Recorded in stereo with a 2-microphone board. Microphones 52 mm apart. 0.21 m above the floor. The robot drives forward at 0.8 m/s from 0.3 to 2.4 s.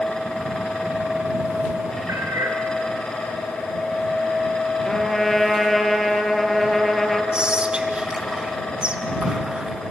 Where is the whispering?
20° right (ahead or behind), 2 m.